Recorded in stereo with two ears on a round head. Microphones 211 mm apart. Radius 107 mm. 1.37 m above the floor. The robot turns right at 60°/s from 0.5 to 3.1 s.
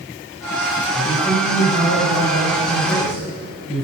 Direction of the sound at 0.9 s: 5° right.